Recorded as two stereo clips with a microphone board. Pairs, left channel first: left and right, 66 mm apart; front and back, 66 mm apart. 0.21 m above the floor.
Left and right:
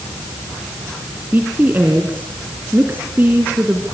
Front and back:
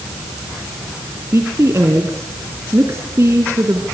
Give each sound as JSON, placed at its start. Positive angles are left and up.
{"t": 1.3, "sound": "a woman speaking", "azimuth_deg": -145, "distance_m": 2.0}